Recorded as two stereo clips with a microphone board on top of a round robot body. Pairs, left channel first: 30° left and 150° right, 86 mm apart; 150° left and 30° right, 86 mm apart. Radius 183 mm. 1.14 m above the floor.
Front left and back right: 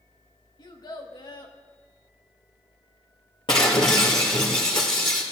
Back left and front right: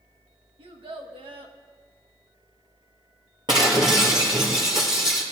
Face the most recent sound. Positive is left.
turn(degrees=5)